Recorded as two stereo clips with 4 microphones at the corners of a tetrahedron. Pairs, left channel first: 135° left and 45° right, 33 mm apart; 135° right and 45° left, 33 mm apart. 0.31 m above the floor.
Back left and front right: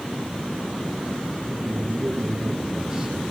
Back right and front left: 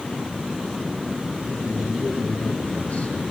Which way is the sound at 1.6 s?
110° right.